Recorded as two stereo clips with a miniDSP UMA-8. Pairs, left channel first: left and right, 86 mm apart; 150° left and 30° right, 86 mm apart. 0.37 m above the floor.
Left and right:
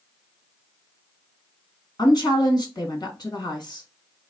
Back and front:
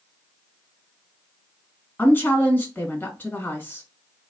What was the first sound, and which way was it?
A woman speaking, 90° left.